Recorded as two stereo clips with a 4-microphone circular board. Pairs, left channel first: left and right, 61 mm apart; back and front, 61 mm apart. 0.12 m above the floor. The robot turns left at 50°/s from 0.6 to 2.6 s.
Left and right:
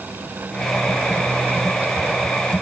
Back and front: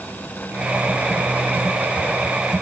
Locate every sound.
Only background noise.